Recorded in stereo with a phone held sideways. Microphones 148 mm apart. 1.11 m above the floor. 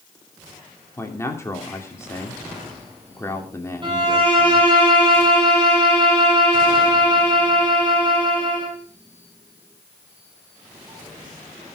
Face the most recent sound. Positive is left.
turn(degrees=-35)  # may be behind; listen again after turning